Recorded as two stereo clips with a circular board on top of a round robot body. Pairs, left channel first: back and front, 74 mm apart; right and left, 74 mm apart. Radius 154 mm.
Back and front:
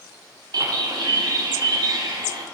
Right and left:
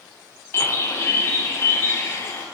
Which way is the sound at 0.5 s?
35° right.